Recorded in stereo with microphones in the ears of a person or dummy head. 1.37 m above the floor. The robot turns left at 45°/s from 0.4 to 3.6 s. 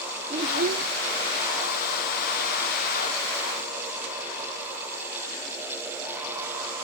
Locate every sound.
0.3 s a child speaking: 35° right (ahead or behind); by 0.9 s 50° right (ahead or behind)